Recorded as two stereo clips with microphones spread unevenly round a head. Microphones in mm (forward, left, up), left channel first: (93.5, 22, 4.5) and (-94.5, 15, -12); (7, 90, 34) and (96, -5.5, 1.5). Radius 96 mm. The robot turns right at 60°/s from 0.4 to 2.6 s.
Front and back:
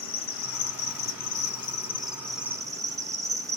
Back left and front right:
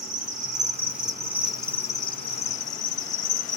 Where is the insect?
25° right, 0.9 m; by 3.6 s 105° left, 0.9 m.